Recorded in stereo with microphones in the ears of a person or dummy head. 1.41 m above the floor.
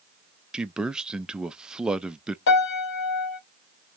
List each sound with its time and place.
0.5 s a man speaking: centre (ahead or behind), 0.5 m
2.5 s a piano: 65° left (ahead or behind), 1.5 m